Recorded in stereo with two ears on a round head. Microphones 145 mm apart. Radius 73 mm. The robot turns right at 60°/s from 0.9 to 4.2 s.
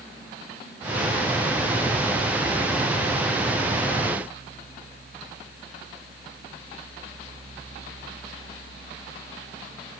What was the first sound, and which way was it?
Only background noise.